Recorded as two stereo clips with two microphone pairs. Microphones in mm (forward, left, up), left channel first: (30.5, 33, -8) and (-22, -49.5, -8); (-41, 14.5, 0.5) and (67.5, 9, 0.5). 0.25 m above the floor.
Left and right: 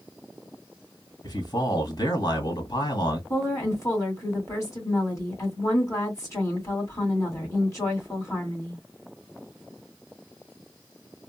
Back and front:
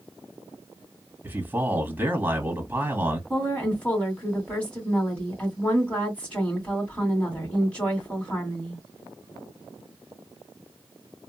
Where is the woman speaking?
105° left, 2 m.